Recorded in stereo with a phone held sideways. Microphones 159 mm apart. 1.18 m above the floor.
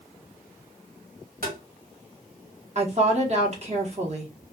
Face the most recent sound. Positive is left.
turn(degrees=-45)  # may be behind; listen again after turning